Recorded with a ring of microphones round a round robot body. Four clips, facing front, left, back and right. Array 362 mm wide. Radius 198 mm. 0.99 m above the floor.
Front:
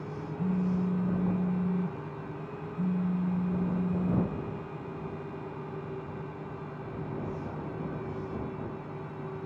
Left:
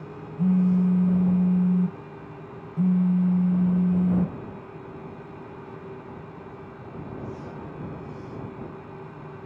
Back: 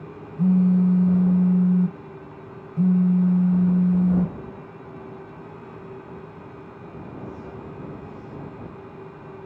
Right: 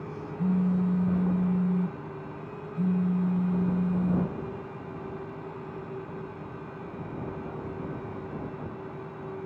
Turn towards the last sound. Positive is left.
turn(degrees=160)